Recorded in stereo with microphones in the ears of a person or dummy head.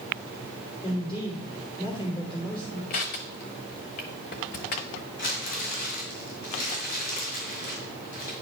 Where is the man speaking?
30° left (ahead or behind), 3 m.